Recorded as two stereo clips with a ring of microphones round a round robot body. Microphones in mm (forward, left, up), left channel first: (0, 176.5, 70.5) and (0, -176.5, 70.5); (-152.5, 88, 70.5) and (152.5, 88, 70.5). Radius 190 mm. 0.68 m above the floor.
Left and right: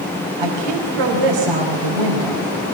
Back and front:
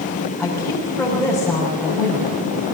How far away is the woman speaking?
About 5.5 m.